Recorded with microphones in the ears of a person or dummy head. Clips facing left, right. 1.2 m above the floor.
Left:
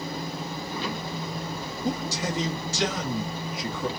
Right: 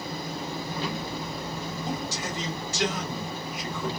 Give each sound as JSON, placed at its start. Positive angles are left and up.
{"t": 1.8, "sound": "a man speaking", "side_deg": 80, "distance_m": 2.5}